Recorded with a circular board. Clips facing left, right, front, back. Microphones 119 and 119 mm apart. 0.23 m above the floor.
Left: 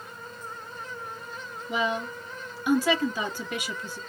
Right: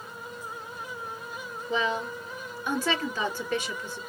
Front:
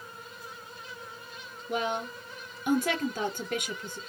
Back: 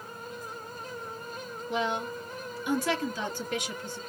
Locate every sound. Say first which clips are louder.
1.7 s a woman speaking: even, even; 15° left, 3 m